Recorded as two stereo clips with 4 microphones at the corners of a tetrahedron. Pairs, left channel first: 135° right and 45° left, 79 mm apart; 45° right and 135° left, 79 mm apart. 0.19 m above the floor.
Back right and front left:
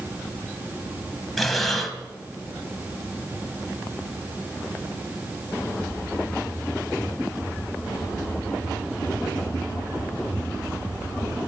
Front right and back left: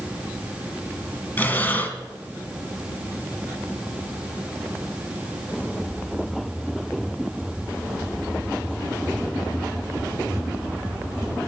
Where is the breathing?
50° right, 1.5 m.